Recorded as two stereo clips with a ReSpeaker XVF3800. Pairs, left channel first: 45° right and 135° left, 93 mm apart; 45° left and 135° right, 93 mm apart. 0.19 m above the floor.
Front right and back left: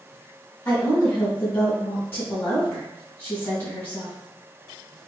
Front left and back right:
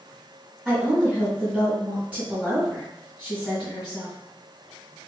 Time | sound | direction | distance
0.7 | a woman speaking | 70° right | 1.6 m